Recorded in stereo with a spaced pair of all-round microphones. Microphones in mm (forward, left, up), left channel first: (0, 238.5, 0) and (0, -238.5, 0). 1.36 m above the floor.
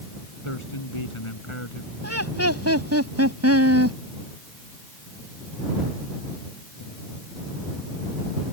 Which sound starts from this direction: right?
Laughter, at 2.0 s.